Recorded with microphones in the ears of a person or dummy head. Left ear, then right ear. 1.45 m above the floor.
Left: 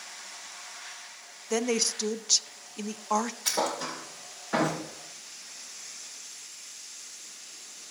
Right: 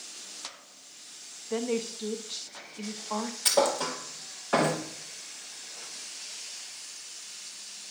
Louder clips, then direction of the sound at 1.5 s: Left 4 dB; 80° left.